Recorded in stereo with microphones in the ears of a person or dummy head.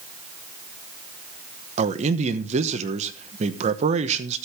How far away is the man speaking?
About 1.0 m.